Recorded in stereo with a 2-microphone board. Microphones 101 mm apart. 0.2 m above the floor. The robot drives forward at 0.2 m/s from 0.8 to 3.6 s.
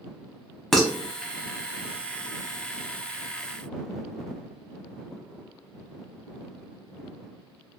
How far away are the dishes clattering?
About 0.7 m.